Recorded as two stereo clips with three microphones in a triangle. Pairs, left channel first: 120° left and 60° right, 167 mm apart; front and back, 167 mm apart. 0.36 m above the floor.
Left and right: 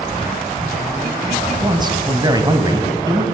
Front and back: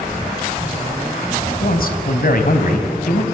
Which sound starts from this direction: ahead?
A man speaking, at 1.6 s.